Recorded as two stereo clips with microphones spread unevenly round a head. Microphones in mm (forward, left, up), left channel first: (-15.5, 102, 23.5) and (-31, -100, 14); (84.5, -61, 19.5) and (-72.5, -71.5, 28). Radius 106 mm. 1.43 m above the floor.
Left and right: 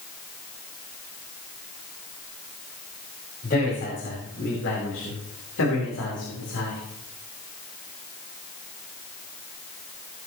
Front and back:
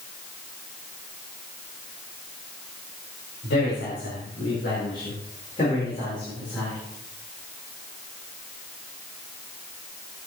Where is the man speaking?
35° left, 5 m; by 6.8 s 80° left, 4.5 m.